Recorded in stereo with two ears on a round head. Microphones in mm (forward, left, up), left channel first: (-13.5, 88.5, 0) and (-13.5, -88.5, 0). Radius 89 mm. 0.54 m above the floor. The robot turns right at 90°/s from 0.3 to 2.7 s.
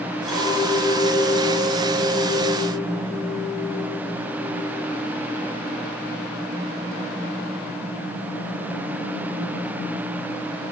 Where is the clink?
Straight ahead, 4.5 m; by 4.8 s 145° right, 4.5 m.